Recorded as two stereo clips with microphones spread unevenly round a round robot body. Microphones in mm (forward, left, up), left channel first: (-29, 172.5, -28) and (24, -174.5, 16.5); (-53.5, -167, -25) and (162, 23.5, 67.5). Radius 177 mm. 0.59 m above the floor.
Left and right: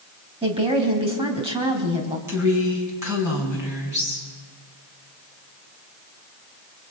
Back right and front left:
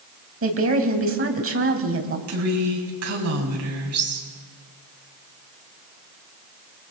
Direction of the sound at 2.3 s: Straight ahead.